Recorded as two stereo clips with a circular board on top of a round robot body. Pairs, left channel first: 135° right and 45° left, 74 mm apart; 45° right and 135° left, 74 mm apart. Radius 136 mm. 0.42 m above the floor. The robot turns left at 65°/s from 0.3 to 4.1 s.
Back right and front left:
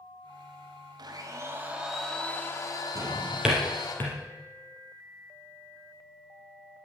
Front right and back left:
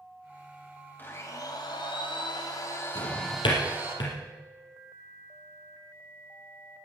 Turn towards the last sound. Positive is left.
turn(degrees=-80)